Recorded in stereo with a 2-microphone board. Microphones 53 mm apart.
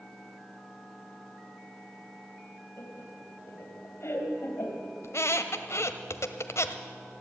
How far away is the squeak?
About 0.8 m.